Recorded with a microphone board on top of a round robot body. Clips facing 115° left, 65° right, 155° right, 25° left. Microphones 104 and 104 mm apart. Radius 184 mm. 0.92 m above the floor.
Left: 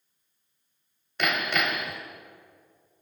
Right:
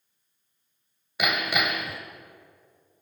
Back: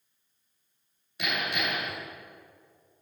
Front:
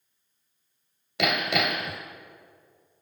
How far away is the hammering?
About 1.9 m.